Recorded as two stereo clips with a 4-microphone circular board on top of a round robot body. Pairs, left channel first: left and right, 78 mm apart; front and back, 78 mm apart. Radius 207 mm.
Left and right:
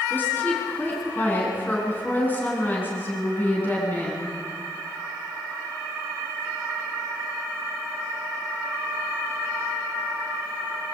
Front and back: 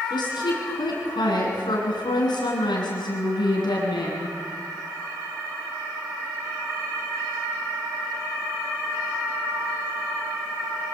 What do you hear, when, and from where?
0.1 s a woman speaking: 25° left, 8.5 m